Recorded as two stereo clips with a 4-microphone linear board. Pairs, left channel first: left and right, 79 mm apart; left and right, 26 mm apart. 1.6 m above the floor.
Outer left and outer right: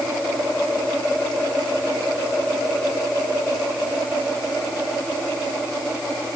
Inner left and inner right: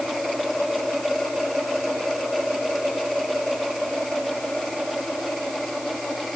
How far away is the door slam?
I don't hear a door slam.